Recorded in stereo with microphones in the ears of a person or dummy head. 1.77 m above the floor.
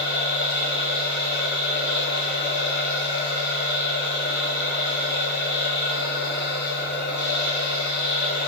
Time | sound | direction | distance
0.0 | a machine running | 50° left (ahead or behind) | 1.6 m